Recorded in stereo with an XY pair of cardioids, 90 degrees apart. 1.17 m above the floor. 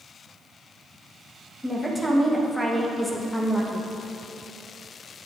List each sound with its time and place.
1.6 s a woman speaking: 5° left, 1.1 m